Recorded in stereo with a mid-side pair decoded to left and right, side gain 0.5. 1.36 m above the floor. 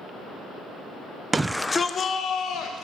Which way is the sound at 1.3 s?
20° right.